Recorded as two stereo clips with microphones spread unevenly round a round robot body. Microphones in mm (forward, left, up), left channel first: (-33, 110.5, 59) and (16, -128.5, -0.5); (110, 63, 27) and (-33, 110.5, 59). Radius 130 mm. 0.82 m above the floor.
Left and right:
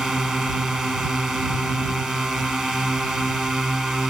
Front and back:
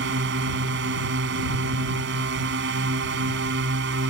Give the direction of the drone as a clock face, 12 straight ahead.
6 o'clock.